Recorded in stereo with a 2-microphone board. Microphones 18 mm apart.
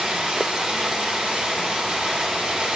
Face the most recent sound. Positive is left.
turn(degrees=-60)  # may be behind; listen again after turning